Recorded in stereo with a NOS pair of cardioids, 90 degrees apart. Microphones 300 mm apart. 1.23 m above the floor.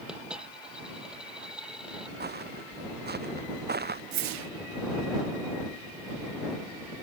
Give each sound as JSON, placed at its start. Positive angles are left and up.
{"t": 0.1, "sound": "a dropped coin", "azimuth_deg": -5}
{"t": 2.2, "sound": "footsteps", "azimuth_deg": -30}
{"t": 4.1, "sound": "a whoosh", "azimuth_deg": -60}